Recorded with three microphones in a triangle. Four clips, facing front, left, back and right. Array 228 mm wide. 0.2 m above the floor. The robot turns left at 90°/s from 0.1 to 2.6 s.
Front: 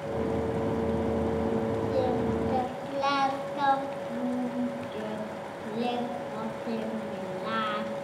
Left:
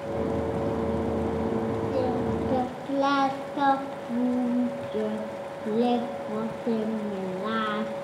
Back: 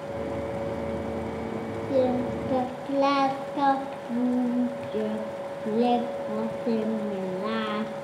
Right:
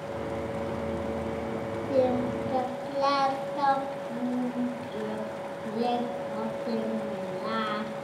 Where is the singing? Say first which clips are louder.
Right 4 dB, back 6 dB; 155° right, 1.0 m; by 7.9 s 140° left, 1.0 m.